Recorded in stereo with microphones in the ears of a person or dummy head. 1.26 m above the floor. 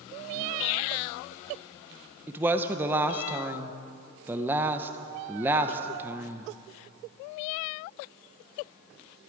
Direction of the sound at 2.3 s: 10° right (ahead or behind).